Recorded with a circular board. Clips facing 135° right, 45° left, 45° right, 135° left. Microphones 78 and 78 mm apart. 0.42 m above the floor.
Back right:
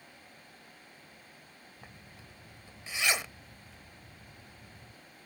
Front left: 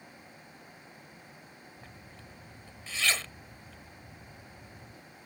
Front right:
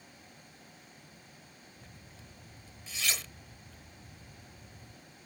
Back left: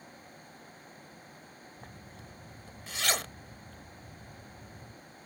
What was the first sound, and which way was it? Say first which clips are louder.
A zipper: front left 2 dB, back left 5 dB; 155° left.